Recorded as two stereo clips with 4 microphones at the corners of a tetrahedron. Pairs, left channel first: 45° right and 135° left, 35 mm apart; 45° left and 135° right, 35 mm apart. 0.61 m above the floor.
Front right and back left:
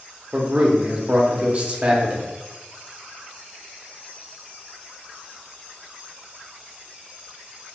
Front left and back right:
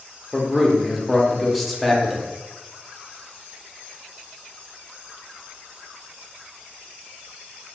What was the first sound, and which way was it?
A man speaking, 130° left.